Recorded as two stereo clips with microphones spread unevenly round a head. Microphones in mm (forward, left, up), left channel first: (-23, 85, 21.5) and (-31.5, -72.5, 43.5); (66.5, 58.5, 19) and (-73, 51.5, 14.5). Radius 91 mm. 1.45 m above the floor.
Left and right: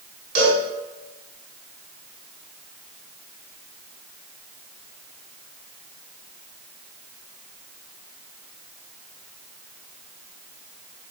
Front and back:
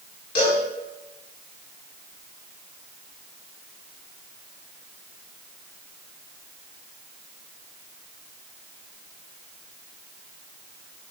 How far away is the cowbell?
About 4.5 m.